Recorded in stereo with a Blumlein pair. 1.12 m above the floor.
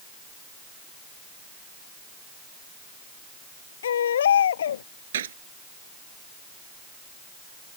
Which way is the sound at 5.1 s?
60° right.